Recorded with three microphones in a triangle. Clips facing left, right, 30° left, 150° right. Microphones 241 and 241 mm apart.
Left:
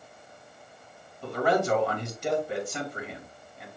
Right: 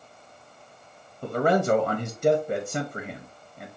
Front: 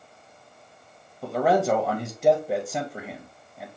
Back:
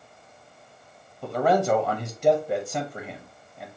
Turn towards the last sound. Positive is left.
turn(degrees=-55)